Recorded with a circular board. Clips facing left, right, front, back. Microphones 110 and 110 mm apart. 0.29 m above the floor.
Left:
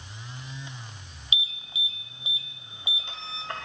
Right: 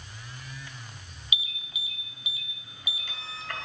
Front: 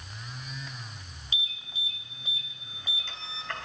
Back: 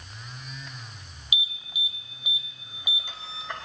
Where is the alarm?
115° left, 2 m.